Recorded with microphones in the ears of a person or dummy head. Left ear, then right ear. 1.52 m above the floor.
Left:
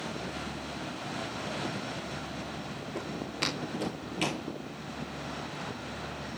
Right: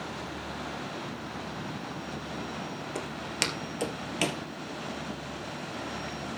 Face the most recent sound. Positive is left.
turn(degrees=-15)  # may be behind; listen again after turning